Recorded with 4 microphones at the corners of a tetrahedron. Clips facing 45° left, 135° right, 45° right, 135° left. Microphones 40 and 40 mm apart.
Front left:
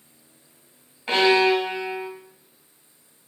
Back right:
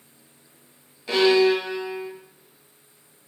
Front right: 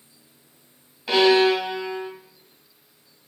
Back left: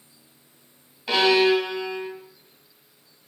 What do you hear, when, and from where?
1.1 s a violin: 35° left, 1.5 m